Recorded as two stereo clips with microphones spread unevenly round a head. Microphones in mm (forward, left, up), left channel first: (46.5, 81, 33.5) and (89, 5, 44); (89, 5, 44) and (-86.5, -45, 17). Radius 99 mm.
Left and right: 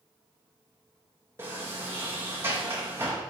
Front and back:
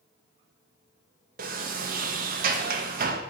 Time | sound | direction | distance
1.4 | a sliding door | 125° right | 0.5 m